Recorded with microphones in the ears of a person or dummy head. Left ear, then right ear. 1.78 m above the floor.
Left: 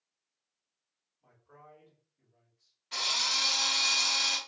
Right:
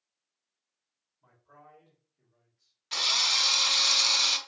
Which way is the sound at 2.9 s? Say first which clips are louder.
Right 4 dB; 45° right (ahead or behind).